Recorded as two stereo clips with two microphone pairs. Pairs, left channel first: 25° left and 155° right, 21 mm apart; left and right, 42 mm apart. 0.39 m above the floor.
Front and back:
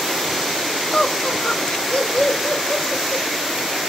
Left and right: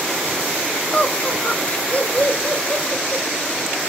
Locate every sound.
0.9 s laughter: 45° left, 2 m